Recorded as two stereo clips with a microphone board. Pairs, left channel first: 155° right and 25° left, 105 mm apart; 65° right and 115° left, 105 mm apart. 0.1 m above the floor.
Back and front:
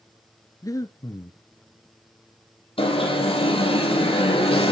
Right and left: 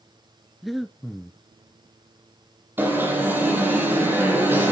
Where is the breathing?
155° right, 0.8 m.